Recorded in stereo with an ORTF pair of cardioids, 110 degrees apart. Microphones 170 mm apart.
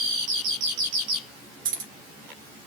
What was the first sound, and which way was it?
Keys jangling, 60° right.